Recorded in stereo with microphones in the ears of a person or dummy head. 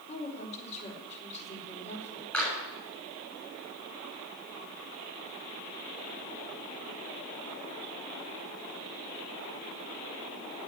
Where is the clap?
10° left (ahead or behind), 7.5 m.